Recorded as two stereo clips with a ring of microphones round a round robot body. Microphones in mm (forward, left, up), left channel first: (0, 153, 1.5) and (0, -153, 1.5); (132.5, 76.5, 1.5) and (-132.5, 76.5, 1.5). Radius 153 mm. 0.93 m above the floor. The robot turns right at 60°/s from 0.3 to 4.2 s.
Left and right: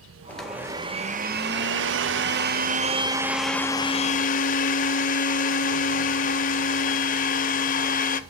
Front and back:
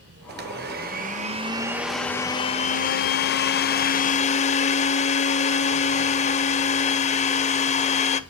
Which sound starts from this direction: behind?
A blender, at 0.3 s.